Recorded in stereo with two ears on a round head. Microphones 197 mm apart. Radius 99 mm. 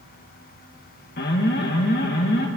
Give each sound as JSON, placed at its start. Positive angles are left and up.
{"t": 1.2, "sound": "an alarm", "side_deg": 45, "distance_m": 1.5}